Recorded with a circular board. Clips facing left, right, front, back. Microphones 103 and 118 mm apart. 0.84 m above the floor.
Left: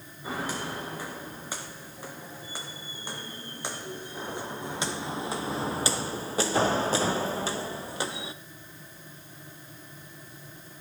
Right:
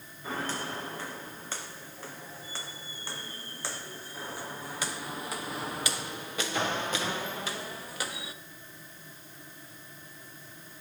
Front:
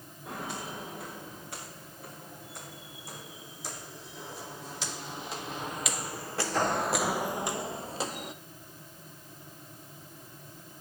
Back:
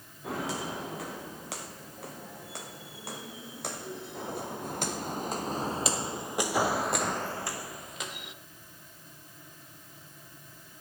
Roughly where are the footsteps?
Behind.